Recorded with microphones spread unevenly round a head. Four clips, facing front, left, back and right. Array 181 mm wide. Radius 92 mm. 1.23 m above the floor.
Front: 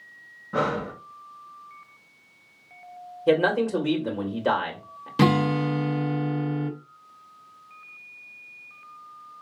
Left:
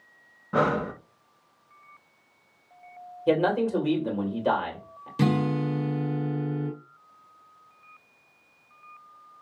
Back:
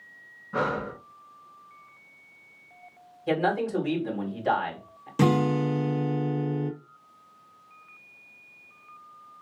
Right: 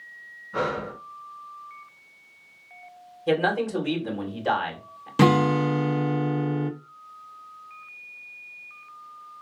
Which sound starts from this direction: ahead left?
Breathing, at 0.5 s.